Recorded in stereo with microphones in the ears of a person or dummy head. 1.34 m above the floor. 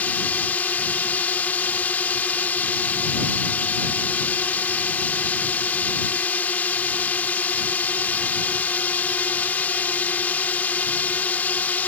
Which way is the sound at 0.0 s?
10° left (ahead or behind).